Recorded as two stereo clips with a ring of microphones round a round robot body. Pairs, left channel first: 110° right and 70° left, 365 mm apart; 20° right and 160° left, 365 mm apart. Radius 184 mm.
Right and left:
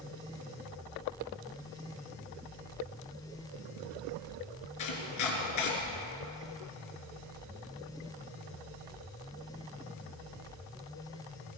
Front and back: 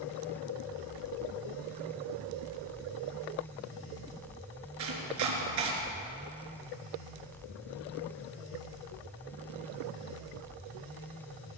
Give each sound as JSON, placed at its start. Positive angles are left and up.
{"t": 4.8, "sound": "chopping", "azimuth_deg": -155, "distance_m": 3.5}